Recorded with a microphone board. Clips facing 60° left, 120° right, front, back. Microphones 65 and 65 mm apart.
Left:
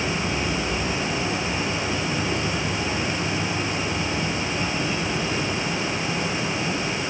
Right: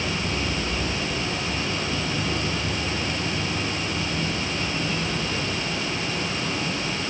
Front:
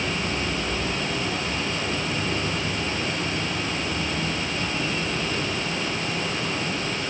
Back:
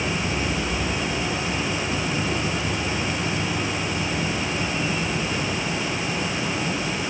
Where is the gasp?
No gasp in this recording.